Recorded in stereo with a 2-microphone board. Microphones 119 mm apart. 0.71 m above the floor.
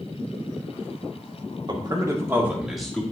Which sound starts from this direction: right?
A man speaking, at 1.7 s.